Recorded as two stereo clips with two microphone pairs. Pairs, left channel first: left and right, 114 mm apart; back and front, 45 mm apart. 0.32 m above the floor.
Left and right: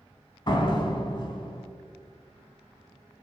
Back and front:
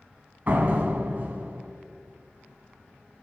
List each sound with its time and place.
0.5 s a door slam: 45° left, 1.5 m